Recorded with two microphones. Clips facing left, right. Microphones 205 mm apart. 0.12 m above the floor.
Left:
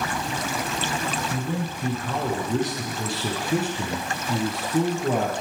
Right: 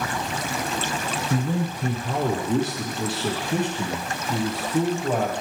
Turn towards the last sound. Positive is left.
turn(degrees=25)  # may be behind; listen again after turning